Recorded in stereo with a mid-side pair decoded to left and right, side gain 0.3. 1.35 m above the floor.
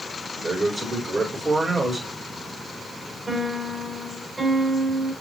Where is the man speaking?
40° right, 5 m.